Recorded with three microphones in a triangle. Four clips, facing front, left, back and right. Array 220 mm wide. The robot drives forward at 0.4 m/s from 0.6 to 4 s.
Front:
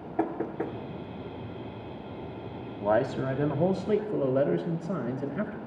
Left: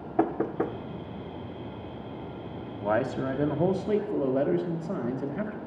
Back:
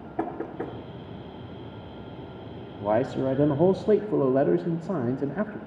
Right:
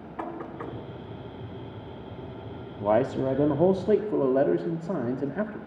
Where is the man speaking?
90° right, 0.6 m; by 5.6 s 155° right, 0.8 m.